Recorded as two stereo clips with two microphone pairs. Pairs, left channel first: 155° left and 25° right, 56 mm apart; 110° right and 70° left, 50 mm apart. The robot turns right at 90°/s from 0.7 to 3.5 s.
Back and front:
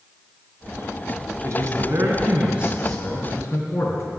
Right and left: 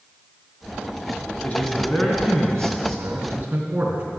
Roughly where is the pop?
No pop in this recording.